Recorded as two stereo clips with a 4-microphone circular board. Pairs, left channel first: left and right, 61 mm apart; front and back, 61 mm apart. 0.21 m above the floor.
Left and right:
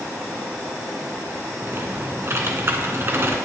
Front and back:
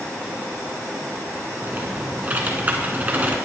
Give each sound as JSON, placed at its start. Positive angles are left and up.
{"t": 1.6, "sound": "typing on a keyboard", "azimuth_deg": -125, "distance_m": 2.0}